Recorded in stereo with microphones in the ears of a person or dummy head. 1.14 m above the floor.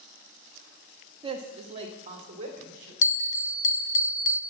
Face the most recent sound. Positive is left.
turn(degrees=40)  # may be behind; listen again after turning